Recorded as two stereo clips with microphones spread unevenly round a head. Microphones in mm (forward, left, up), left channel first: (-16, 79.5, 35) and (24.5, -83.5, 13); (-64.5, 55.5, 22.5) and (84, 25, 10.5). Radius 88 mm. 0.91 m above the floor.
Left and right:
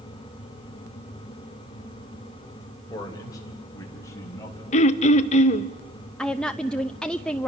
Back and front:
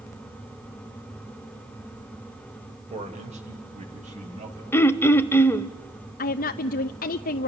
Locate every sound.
2.9 s a man speaking: 35° left, 3.5 m; by 4.6 s 30° left, 5.5 m
4.7 s throat clearing: 105° left, 0.8 m
6.2 s a woman speaking: 165° right, 0.6 m